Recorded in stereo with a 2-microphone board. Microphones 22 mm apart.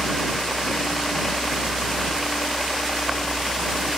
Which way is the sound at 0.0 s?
20° left (ahead or behind).